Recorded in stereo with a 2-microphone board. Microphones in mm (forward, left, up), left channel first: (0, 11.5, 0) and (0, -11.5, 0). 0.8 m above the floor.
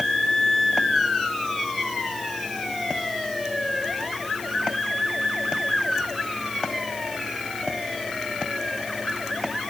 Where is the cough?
No cough in this recording.